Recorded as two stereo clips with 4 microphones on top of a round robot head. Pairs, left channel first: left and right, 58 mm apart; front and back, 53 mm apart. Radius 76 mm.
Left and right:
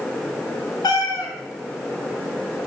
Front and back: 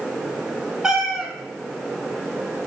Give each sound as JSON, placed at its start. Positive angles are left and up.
{"t": 0.8, "sound": "a cat meowing", "azimuth_deg": 100, "distance_m": 3.5}